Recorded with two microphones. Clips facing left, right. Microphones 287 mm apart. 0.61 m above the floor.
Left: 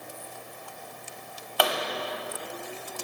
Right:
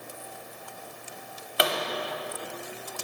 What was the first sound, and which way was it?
A pop, 25° right (ahead or behind).